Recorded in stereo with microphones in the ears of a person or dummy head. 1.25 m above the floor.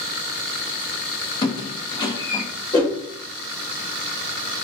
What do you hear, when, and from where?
1.4 s a squeak: 20° left (ahead or behind), 0.5 m
2.7 s a whoosh: 20° left (ahead or behind), 2.5 m